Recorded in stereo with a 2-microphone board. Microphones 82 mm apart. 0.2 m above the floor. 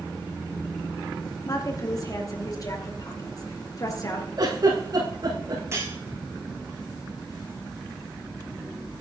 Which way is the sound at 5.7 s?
30° right (ahead or behind).